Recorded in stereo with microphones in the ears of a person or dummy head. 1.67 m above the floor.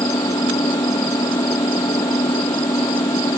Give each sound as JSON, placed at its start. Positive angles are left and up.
{"t": 0.0, "sound": "an engine running", "side_deg": 15}